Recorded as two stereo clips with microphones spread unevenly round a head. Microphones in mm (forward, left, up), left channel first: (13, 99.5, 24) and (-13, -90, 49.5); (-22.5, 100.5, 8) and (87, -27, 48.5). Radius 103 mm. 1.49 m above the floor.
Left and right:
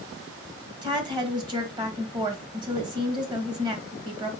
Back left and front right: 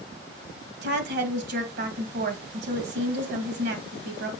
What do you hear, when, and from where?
0.8 s a woman speaking: 30° right, 1.9 m